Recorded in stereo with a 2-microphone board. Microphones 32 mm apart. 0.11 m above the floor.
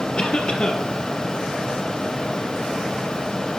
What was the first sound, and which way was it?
A cough, 35° left (ahead or behind).